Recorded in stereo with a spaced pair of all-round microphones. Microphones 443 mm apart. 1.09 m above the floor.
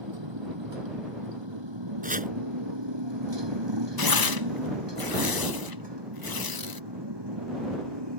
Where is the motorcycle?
75° right (ahead or behind); by 8.2 s 65° right (ahead or behind).